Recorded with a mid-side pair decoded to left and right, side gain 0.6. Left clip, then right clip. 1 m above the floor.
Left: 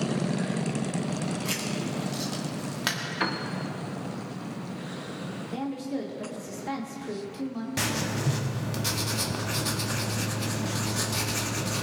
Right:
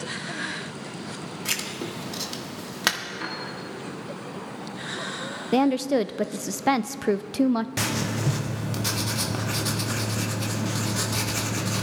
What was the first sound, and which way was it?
Writing, 35° right.